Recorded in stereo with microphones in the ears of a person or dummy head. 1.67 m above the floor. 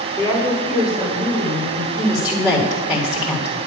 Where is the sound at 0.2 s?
25° right (ahead or behind), 5.5 m; by 1.9 s 35° right (ahead or behind), 6.5 m.